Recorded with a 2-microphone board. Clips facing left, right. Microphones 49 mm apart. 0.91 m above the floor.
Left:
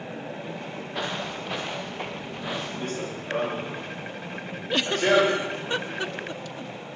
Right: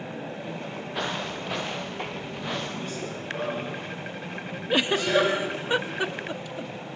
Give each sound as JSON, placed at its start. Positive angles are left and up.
{"t": 0.9, "sound": "footsteps", "side_deg": 0, "distance_m": 6.0}
{"t": 2.8, "sound": "running footsteps", "side_deg": 45, "distance_m": 6.5}
{"t": 4.7, "sound": "a giggle", "side_deg": -15, "distance_m": 0.7}